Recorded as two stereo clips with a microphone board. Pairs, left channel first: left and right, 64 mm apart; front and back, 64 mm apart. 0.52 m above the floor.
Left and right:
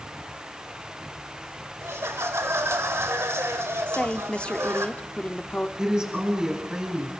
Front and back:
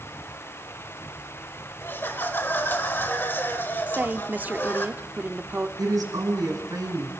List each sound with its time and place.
1.8 s laughter: 50° right, 1.9 m
3.9 s a woman speaking: 150° left, 0.8 m
5.8 s a woman speaking: 165° right, 5 m